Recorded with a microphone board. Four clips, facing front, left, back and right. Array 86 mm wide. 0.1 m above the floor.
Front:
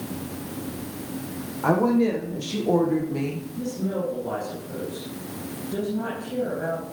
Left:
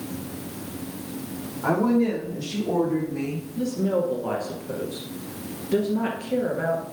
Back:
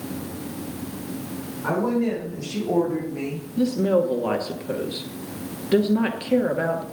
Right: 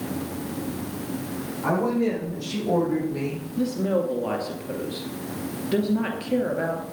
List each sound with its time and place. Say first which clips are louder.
1.6 s a woman speaking: left 2 dB, front 3 dB; 5° left, 5.5 m; by 3.5 s 20° right, 4.5 m
3.6 s a woman speaking: even, back 9 dB; 165° right, 2 m